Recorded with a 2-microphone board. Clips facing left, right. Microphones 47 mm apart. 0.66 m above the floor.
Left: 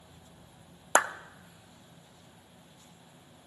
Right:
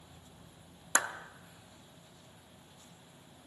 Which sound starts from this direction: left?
A clap, at 0.9 s.